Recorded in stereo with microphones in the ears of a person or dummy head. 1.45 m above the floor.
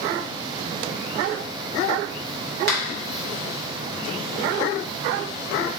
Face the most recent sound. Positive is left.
turn(degrees=-50)  # may be behind; listen again after turning